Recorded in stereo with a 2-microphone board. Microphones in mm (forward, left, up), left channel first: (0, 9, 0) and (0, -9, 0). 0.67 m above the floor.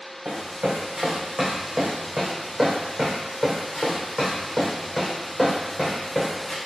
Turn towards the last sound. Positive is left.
turn(degrees=10)  # may be behind; listen again after turning